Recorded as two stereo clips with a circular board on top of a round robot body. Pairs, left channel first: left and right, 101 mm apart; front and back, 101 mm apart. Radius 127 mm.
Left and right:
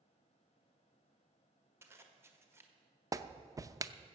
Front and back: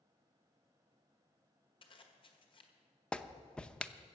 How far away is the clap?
About 0.7 m.